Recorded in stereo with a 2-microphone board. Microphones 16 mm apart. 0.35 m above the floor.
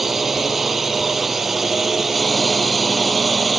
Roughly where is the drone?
Centre.